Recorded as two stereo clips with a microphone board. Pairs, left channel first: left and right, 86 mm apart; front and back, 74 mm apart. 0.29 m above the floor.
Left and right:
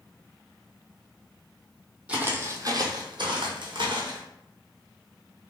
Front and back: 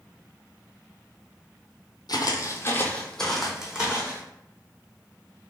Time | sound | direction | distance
2.1 | footsteps | 15° right | 0.6 m